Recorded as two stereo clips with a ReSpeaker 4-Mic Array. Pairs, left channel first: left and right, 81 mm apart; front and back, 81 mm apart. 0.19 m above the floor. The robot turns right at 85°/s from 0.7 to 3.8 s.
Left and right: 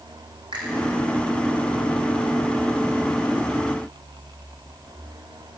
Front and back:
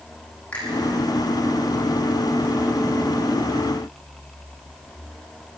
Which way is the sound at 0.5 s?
75° right.